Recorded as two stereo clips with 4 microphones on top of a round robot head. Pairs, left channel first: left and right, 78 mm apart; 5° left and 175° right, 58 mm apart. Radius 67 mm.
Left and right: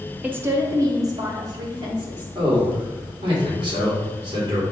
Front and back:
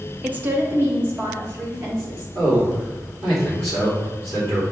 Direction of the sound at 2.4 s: 125° right.